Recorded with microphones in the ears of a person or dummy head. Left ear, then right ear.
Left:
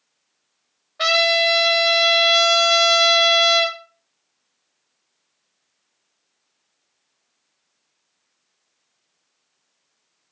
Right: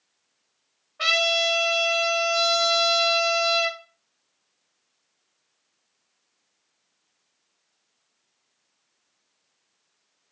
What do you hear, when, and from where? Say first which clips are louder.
1.0 s a trumpet: left 4 dB; 30° left (ahead or behind), 1.0 m